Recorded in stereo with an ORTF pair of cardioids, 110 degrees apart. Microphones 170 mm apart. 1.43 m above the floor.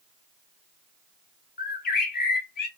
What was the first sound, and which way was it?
A bird, 65° left.